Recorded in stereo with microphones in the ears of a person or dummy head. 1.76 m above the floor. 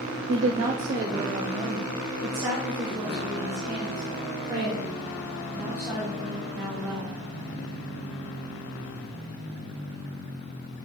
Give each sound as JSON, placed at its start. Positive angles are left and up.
{"t": 0.3, "sound": "a woman speaking", "side_deg": -20, "distance_m": 0.5}